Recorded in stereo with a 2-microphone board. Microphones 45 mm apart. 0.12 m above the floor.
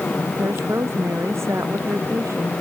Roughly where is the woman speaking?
Right.